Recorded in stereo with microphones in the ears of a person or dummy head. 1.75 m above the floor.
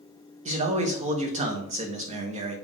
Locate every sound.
0.5 s a man speaking: 35° right (ahead or behind), 0.5 m